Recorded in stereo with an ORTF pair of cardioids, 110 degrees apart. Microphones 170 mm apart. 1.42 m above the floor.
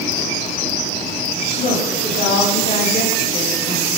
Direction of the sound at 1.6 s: 55° left.